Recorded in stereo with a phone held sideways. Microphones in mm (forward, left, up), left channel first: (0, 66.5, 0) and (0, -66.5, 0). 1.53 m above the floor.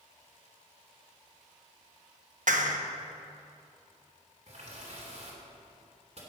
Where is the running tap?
55° right (ahead or behind), 3 m.